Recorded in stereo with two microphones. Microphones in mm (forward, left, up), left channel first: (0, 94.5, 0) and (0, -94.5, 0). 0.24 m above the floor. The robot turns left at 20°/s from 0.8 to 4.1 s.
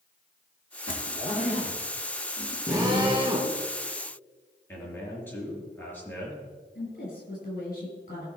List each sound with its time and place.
0.9 s a zipper: 45° left (ahead or behind), 1.8 m; by 2.6 s 15° left (ahead or behind), 1.8 m
2.7 s a drill: 15° right (ahead or behind), 3 m; by 3.5 s 35° right (ahead or behind), 3 m
4.7 s a man speaking: 10° left (ahead or behind), 4.5 m
6.8 s a woman speaking: 50° left (ahead or behind), 5 m